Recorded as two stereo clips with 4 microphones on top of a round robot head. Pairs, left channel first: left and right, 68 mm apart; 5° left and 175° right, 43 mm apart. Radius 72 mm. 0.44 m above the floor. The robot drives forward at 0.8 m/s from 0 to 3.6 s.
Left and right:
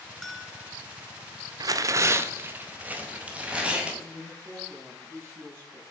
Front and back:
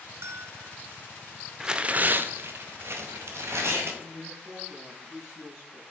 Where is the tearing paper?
100° right, 0.6 m; by 3.9 s 165° right, 1.8 m.